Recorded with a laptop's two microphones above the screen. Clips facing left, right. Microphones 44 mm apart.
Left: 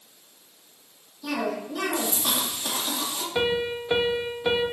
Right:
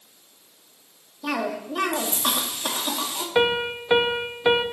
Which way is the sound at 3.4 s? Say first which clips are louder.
Right 4 dB; 30° right (ahead or behind).